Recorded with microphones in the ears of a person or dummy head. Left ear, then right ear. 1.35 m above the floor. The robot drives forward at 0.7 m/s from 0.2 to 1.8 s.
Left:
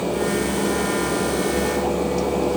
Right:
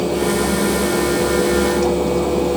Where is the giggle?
I don't hear a giggle.